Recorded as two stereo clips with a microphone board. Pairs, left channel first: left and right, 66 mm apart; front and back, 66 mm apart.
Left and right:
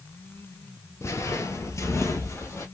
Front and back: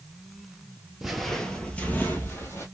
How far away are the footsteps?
About 0.9 m.